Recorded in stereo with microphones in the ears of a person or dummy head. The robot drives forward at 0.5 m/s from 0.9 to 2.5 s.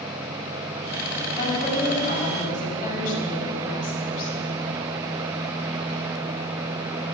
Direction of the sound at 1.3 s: 45° left (ahead or behind).